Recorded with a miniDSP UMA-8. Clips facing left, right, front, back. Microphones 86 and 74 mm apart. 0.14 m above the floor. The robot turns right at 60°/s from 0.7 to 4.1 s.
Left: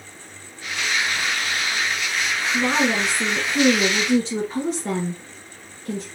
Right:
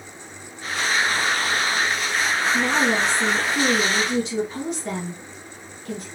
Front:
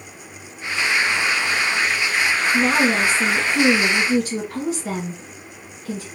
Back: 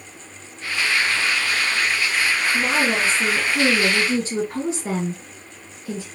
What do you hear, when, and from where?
2.5 s a woman speaking: 40° left, 1.6 m; by 6.1 s 130° left, 1.6 m